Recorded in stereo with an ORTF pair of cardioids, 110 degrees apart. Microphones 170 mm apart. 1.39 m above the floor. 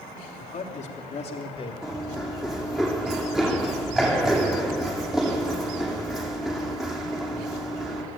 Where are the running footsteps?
Straight ahead, 4.5 m.